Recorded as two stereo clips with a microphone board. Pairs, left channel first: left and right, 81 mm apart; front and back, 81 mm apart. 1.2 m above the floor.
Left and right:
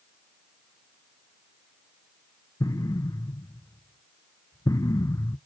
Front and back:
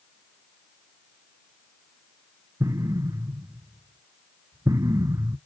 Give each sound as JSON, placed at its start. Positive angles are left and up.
{"t": 2.6, "sound": "an explosion", "azimuth_deg": 135, "distance_m": 0.5}